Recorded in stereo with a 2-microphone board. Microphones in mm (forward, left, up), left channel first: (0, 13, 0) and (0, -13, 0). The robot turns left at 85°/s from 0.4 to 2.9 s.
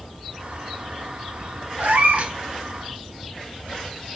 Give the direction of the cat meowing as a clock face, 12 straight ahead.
3 o'clock.